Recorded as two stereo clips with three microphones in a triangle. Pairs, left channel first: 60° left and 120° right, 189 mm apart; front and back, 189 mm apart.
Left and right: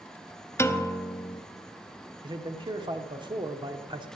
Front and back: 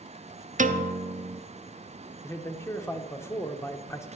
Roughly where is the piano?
Behind left.